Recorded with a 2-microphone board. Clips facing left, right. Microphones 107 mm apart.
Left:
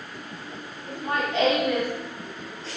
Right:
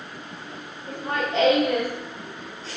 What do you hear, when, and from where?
0.9 s laughter: 30° right (ahead or behind), 1.4 m; by 1.9 s 40° right (ahead or behind), 1.8 m